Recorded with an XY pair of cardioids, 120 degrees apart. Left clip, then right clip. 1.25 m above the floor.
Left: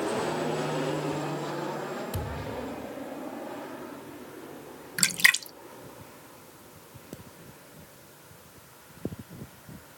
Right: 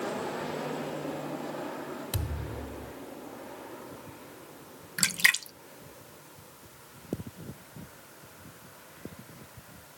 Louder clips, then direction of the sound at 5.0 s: Left 3 dB; 15° left.